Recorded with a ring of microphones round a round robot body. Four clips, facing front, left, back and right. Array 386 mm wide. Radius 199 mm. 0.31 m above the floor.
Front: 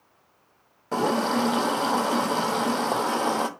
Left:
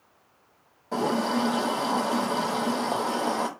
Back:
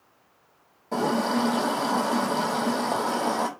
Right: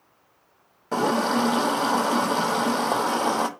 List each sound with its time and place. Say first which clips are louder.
0.9 s a running tap: right 3 dB, front 1 dB; 60° right, 0.7 m